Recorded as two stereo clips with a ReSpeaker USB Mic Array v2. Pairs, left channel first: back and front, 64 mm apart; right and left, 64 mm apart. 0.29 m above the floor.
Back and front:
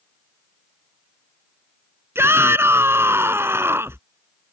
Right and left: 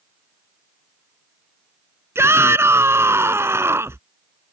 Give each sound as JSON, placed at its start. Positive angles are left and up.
{"t": 2.1, "sound": "a shout", "azimuth_deg": 45}